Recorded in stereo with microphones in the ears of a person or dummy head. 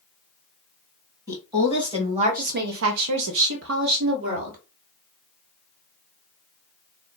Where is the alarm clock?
I don't hear an alarm clock.